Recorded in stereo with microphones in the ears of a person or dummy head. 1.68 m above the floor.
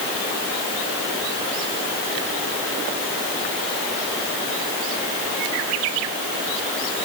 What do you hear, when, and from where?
Only background noise.